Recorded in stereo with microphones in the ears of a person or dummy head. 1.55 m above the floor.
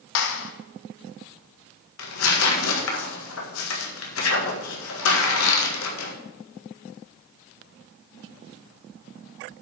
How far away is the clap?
About 1.1 m.